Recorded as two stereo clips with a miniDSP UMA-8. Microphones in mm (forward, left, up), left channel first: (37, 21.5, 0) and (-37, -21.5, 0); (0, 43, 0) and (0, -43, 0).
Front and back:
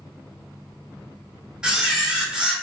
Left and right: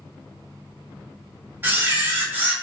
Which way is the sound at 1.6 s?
80° right.